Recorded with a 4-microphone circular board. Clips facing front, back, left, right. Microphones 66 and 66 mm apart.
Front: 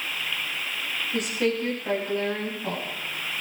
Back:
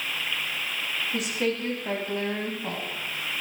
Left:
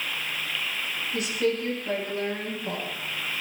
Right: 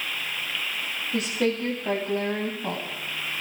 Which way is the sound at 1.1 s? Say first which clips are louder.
Front 3 dB, right 1 dB; 95° right.